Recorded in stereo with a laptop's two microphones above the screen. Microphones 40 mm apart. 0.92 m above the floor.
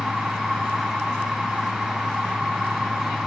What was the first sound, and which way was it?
A machine running, 10° right (ahead or behind).